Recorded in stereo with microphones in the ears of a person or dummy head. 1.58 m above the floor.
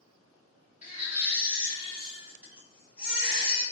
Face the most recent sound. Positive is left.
turn(degrees=-10)  # may be behind; listen again after turning